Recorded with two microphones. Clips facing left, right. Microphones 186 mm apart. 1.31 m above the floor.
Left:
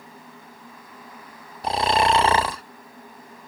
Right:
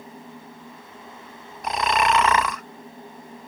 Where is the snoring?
30° left (ahead or behind).